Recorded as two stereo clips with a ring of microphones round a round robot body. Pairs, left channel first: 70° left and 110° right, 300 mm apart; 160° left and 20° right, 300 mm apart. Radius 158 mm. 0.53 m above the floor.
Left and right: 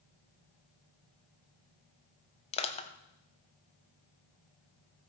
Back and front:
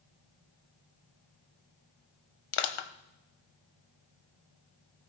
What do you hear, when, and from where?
2.5 s crushing: 140° left, 0.9 m